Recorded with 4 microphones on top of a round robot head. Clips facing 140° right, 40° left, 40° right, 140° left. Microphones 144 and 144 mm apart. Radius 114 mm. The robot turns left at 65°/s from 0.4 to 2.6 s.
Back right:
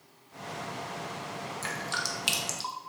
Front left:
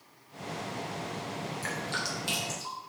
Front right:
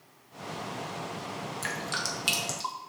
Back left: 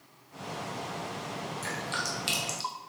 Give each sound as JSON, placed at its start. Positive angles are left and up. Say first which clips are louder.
{"t": 1.6, "sound": "dripping", "louder": "front left 1 dB, even", "azimuth_deg": -70, "distance_m": 1.2}